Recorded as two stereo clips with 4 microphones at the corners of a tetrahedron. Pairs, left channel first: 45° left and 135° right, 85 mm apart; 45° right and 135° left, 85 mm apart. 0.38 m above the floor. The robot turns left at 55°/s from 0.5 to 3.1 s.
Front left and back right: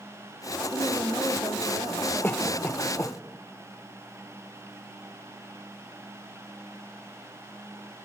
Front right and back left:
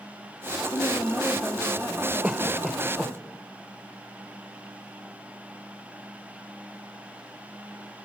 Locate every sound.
0.7 s a woman speaking: 95° right, 1.6 m; by 3.2 s 135° left, 1.6 m
2.2 s a cough: 80° left, 1.1 m; by 3.1 s 30° left, 1.1 m